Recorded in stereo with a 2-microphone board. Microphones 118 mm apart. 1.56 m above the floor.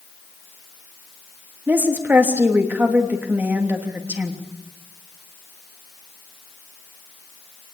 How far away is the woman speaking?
About 3 m.